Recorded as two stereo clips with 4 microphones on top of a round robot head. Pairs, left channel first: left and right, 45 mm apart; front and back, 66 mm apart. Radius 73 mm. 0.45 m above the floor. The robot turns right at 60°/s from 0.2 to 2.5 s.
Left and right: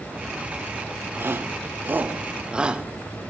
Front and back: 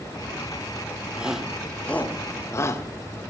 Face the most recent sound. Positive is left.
turn(degrees=-25)